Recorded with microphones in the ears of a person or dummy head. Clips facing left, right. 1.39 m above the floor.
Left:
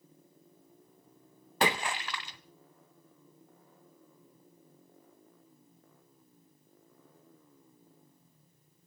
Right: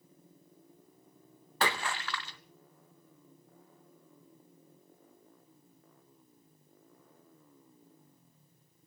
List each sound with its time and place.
1.6 s a splash: 15° left (ahead or behind), 0.6 m